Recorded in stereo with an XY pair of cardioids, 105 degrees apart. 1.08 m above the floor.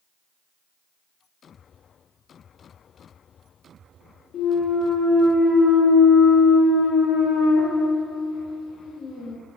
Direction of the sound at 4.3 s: 70° left.